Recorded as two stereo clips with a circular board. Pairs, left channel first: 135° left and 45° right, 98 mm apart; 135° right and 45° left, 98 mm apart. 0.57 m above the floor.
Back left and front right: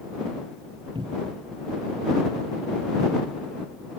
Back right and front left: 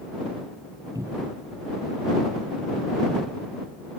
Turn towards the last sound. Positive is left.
turn(degrees=-10)